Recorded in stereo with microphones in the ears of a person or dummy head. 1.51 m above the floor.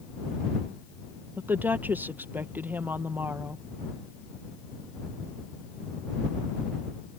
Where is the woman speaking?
10° right (ahead or behind).